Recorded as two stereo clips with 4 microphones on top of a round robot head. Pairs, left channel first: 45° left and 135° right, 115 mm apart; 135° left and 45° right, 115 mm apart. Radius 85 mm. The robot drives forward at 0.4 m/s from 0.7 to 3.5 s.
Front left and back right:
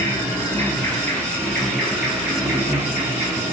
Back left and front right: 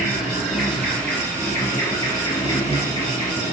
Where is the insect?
50° left, 0.9 m; by 3.5 s 165° left, 1.3 m.